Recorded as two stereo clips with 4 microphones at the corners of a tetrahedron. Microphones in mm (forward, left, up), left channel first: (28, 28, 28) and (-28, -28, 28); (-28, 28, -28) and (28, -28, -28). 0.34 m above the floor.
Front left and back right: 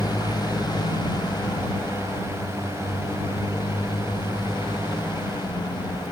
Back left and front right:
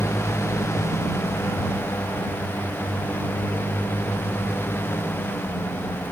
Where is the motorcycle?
80° left; by 6.1 s 75° left.